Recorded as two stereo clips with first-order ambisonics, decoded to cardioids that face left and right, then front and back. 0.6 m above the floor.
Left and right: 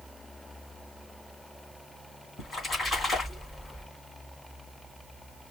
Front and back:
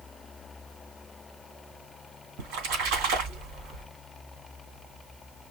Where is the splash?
165° left, 3 m.